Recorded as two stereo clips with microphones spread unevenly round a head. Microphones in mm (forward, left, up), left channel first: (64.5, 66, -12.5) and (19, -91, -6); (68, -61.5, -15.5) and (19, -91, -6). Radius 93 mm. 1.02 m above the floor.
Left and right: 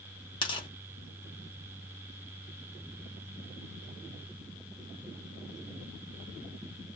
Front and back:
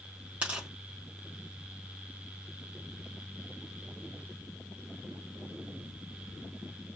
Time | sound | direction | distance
0.4 | tearing paper | 130° left | 0.8 m